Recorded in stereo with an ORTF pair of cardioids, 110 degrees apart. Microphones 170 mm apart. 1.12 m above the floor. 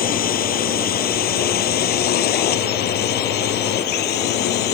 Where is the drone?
60° left; by 4.8 s 80° left.